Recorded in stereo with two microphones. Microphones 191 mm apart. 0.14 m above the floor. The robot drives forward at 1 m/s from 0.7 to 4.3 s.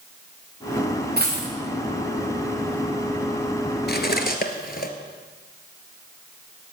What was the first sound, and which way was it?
A dropped coin, 60° right (ahead or behind).